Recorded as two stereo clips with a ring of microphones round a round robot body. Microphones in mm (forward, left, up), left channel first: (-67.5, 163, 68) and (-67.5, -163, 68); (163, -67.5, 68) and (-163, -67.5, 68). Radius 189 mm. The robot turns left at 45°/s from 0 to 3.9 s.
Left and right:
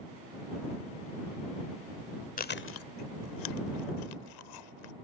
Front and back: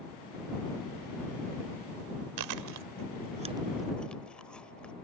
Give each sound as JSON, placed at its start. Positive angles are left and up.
{"t": 2.4, "sound": "chewing", "azimuth_deg": 155}